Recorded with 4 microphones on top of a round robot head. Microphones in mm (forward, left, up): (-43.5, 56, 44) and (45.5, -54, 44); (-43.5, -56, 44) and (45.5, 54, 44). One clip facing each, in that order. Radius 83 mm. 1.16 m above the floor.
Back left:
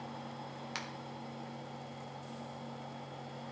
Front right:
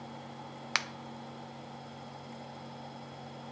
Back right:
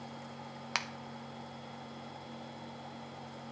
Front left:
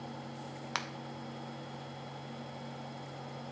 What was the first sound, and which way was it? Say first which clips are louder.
A finger snap: front right 8 dB, even; 45° right.